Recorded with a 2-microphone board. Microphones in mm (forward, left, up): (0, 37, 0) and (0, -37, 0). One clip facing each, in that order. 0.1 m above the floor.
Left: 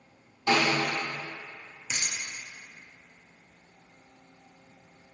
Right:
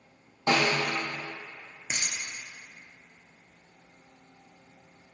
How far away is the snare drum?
About 1.0 m.